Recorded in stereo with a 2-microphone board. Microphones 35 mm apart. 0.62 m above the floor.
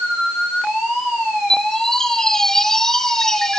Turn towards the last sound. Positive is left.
turn(degrees=15)  # may be behind; listen again after turning